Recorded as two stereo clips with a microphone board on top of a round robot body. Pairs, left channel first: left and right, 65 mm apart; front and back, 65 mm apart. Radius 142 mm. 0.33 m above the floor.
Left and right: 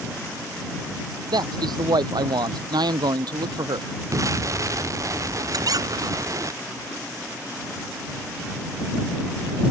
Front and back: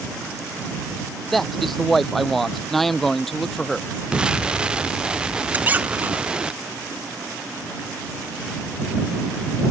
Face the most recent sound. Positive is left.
turn(degrees=-115)